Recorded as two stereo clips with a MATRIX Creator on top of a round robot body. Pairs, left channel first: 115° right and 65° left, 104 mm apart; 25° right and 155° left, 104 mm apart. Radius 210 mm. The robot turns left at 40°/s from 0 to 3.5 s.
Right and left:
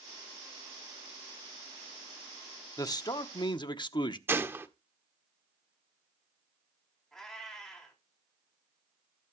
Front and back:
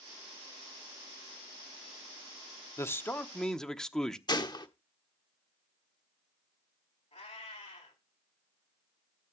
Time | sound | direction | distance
2.8 | a man speaking | 75° right | 1.2 m
4.3 | a gunshot | 5° left | 1.4 m
7.1 | a cat meowing | 30° right | 3.5 m